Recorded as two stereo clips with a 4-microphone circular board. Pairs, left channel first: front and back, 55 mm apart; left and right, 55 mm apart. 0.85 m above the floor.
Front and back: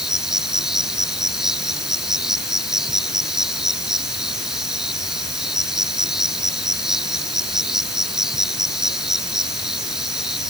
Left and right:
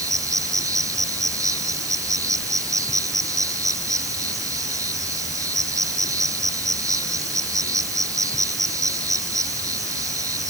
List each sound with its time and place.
0.0 s an insect: 95° right